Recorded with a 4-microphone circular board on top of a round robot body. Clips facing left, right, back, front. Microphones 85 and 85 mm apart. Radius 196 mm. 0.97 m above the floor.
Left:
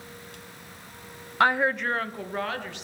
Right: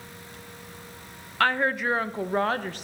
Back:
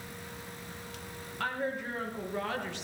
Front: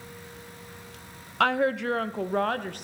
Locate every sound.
1.4 s a woman speaking: 15° left, 0.6 m; by 2.8 s 45° right, 0.9 m